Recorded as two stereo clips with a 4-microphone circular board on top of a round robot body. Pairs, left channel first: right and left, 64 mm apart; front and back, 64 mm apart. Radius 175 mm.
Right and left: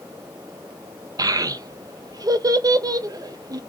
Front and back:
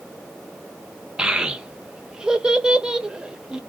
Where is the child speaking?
100° left, 0.8 m.